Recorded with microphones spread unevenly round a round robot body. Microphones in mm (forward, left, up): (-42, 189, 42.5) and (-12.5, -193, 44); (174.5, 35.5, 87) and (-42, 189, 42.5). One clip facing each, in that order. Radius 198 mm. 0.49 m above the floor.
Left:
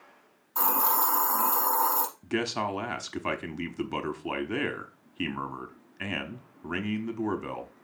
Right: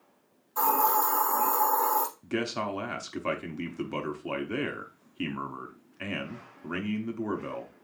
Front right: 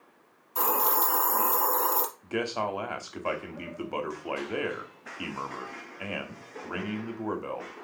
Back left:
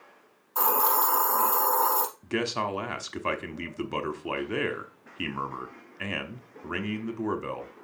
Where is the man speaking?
170° left, 1.0 m.